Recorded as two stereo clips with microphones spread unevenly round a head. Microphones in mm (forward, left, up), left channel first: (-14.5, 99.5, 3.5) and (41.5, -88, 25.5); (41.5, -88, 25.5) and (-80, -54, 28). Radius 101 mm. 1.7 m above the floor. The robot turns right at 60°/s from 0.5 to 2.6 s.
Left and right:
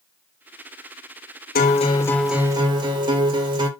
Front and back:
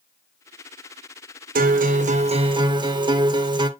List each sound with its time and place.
1.6 s a guitar: 155° left, 1.4 m; by 3.7 s 140° right, 1.4 m